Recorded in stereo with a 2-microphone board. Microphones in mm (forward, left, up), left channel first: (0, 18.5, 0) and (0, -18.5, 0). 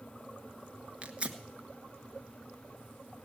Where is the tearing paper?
30° right (ahead or behind), 1.1 m.